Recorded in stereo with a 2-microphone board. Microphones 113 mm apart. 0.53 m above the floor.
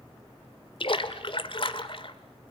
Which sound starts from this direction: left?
A splash, at 0.8 s.